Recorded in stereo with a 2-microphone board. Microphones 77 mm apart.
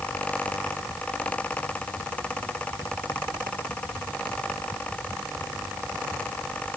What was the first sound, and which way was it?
Only background noise.